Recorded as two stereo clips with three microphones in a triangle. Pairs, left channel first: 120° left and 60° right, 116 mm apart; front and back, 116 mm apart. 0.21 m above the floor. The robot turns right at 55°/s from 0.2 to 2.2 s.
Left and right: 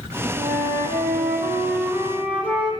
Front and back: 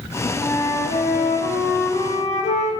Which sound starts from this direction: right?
A flute, at 0.4 s.